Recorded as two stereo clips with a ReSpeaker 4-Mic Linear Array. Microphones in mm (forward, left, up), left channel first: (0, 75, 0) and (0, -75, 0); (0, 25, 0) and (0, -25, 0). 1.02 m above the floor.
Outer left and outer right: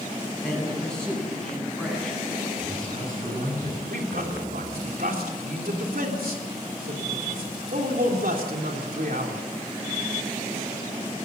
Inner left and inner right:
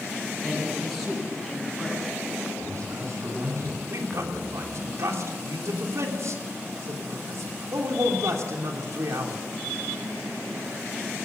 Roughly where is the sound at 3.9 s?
Right.